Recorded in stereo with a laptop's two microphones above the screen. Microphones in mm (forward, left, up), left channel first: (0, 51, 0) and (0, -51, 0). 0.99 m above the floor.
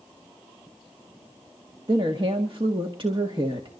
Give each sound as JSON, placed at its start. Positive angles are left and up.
{"t": 1.9, "sound": "a woman speaking", "side_deg": -50, "distance_m": 1.8}